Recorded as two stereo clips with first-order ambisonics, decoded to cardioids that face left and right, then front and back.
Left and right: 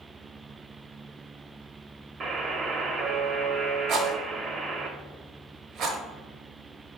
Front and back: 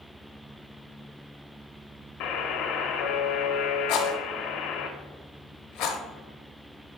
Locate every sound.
2.2 s a buzzer: 25° right, 0.7 m
3.9 s a rattle: 35° right, 0.7 m